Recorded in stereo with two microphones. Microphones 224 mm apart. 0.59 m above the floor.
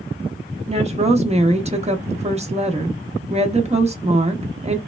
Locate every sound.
0.7 s a woman speaking: 30° right (ahead or behind), 0.7 m